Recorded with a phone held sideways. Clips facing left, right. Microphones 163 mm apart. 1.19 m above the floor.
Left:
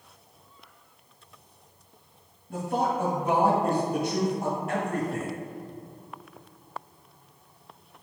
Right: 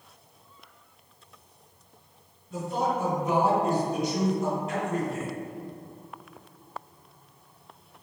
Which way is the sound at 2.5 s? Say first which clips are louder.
Left 1 dB; 55° left (ahead or behind).